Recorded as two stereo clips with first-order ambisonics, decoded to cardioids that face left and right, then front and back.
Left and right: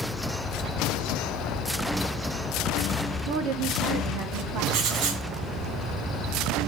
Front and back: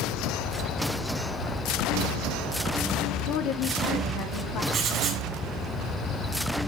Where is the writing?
120° right, 2.5 m.